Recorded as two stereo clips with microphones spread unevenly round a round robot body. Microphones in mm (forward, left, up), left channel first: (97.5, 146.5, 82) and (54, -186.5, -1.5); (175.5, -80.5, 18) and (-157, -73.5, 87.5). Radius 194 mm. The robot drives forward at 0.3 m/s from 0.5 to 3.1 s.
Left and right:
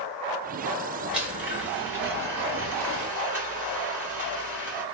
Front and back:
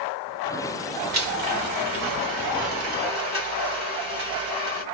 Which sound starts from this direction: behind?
A blender, at 1.1 s.